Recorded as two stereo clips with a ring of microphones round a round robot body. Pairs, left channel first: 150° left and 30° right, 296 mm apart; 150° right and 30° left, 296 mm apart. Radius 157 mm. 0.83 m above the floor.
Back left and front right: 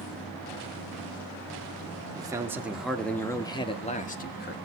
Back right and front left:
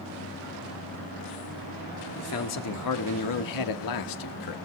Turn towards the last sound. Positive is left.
turn(degrees=-155)